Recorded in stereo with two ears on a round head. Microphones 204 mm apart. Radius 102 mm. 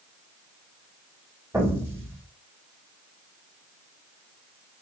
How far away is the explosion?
About 1.9 m.